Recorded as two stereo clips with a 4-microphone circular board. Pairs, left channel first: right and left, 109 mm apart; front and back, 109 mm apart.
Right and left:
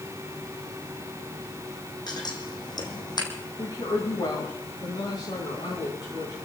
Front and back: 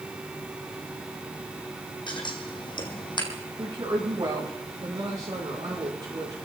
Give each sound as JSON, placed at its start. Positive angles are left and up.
{"t": 2.1, "sound": "scissors", "azimuth_deg": -40, "distance_m": 2.5}
{"t": 3.6, "sound": "a woman speaking", "azimuth_deg": -135, "distance_m": 7.5}